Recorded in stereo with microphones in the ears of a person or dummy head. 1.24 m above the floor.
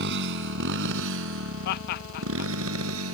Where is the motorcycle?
65° right (ahead or behind); by 3.1 s 85° right.